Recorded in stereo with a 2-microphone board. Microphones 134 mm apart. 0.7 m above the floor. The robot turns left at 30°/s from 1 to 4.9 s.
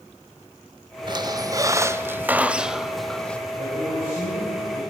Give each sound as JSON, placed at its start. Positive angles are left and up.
{"t": 1.1, "sound": "a squeak", "azimuth_deg": -125, "distance_m": 0.5}
{"t": 3.6, "sound": "a man speaking", "azimuth_deg": -125, "distance_m": 4.0}